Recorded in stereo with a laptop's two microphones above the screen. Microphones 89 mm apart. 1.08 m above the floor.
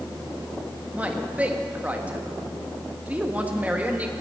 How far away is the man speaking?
About 1.2 m.